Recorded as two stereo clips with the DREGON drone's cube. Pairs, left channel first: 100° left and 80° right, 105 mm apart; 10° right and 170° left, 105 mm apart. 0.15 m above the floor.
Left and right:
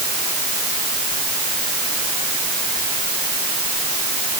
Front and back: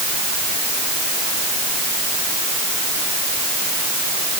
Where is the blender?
I don't hear a blender.